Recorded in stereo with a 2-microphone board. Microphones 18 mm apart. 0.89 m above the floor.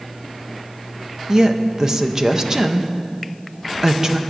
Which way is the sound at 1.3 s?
30° right (ahead or behind).